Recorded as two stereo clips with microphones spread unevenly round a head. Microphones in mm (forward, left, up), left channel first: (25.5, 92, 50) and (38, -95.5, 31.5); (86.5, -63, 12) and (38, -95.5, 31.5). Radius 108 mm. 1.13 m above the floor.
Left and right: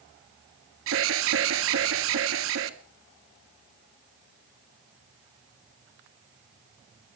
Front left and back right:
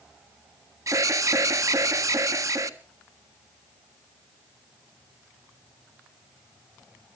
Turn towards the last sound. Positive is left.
turn(degrees=-110)